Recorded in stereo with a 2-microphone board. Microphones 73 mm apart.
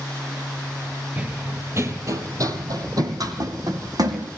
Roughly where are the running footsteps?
Centre.